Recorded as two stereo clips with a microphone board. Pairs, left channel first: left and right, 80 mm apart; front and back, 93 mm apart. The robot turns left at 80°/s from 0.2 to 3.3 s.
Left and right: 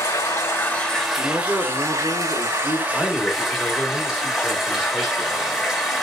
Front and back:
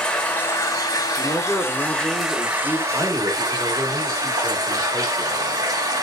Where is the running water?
70° left, 1.2 m; by 6.0 s 175° right, 1.2 m.